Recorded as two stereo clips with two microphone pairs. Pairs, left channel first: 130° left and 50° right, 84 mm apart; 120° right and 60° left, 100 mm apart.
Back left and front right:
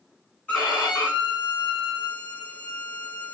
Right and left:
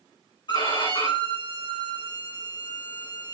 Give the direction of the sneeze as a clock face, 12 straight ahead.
No sneeze in this recording.